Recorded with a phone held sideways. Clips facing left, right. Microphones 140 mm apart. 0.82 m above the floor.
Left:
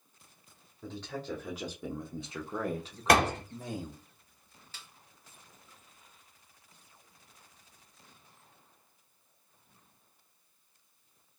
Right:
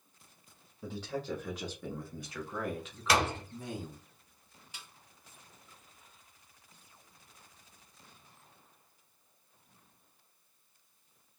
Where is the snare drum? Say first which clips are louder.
Right 1 dB; 15° right (ahead or behind), 0.8 m.